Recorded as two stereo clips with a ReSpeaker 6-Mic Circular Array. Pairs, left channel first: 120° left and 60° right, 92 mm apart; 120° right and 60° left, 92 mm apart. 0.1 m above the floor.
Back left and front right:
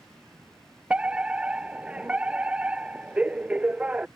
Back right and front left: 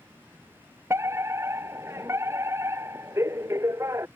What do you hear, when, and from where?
0.9 s a fire alarm: 10° left